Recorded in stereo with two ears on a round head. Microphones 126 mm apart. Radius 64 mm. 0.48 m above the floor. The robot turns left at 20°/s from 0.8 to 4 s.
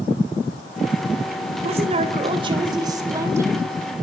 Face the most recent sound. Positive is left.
turn(degrees=-170)